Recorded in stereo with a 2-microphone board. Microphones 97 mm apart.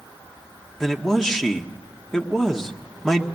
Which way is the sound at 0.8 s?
5° left (ahead or behind).